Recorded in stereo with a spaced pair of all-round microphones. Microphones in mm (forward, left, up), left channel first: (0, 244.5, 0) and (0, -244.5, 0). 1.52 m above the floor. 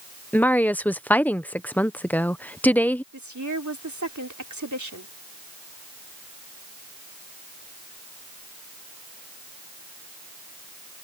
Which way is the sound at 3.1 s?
35° right (ahead or behind).